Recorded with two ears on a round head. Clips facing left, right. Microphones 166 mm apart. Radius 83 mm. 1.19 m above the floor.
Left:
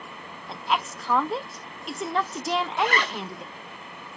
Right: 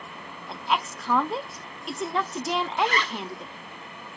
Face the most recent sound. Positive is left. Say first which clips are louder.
# even
turn(degrees=45)  # may be behind; listen again after turning